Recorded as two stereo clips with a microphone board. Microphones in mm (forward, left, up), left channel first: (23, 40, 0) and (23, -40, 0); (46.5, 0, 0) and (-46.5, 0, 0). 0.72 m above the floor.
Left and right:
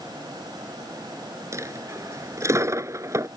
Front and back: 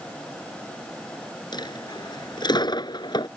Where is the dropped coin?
40° right.